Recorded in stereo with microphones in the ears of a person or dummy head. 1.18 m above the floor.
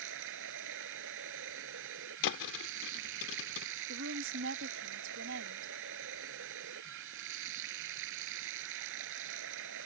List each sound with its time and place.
0.0 s running water: 65° right (ahead or behind)
2.2 s a thud: 70° left (ahead or behind)
3.9 s a woman speaking: 65° right (ahead or behind)